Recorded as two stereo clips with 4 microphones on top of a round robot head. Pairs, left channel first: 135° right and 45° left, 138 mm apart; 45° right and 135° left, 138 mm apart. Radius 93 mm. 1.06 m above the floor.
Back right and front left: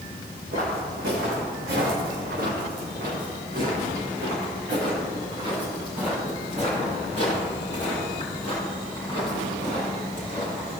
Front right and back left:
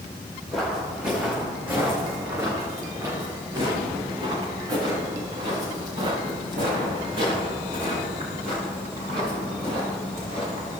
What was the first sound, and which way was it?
Footsteps, 40° left.